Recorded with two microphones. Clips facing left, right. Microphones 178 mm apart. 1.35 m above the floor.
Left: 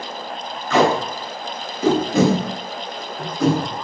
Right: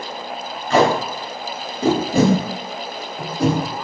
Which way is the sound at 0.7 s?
35° right (ahead or behind).